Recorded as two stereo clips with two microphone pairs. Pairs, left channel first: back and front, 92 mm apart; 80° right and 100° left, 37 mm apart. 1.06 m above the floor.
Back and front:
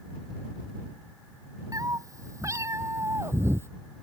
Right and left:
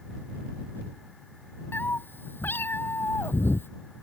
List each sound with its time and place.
1.7 s a cat meowing: 55° right; by 3.7 s 65° right